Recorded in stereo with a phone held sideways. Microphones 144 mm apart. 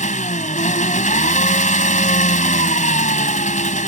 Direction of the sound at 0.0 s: 60° left (ahead or behind).